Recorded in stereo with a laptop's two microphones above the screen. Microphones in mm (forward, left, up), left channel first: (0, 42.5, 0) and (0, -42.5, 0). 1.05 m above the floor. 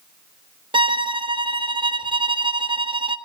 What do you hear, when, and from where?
0.7 s a violin: 80° right, 0.6 m